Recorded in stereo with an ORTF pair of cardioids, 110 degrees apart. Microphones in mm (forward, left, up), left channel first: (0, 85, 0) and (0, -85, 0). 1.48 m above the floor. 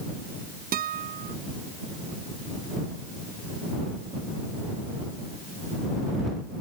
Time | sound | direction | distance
0.7 | a guitar | 60° right | ?